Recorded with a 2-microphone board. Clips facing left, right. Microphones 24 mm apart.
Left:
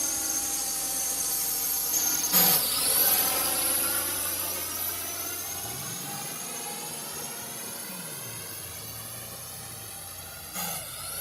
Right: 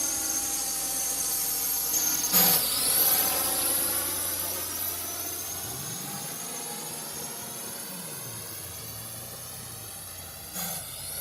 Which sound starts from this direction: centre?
A drone, at 0.0 s.